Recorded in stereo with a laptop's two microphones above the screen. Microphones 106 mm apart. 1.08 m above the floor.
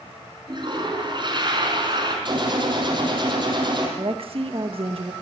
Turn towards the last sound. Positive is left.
turn(degrees=-60)  # may be behind; listen again after turning